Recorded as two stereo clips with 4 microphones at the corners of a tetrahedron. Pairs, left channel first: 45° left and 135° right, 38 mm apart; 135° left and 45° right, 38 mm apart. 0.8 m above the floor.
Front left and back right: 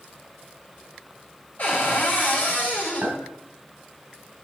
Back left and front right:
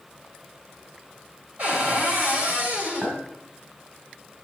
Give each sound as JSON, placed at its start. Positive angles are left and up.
{"t": 1.6, "sound": "a cupboard door", "azimuth_deg": 5, "distance_m": 3.0}
{"t": 3.0, "sound": "a clink", "azimuth_deg": -105, "distance_m": 3.5}